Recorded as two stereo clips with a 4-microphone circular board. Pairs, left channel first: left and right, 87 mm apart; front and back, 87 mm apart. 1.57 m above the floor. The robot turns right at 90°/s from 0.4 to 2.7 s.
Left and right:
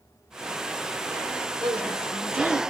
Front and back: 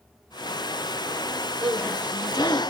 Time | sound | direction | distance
1.6 | a woman speaking | 100° right | 5.5 m